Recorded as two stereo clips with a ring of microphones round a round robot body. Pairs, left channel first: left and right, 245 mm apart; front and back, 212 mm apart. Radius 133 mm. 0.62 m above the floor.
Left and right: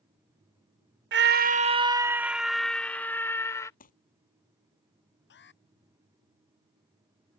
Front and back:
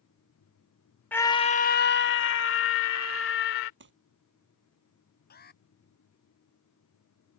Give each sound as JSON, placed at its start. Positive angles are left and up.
{"t": 1.1, "sound": "a scream", "azimuth_deg": -80}
{"t": 3.8, "sound": "crumpling", "azimuth_deg": 150}
{"t": 5.3, "sound": "an alarm", "azimuth_deg": 45}